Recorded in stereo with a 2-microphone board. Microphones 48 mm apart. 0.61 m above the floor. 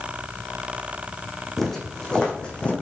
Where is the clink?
No clink in this recording.